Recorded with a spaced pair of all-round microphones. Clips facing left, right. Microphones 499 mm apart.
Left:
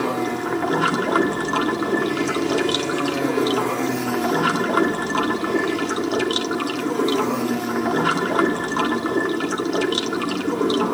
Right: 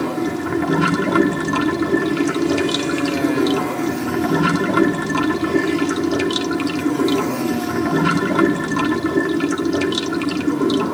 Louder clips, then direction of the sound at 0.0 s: Right 2 dB; 45° right (ahead or behind).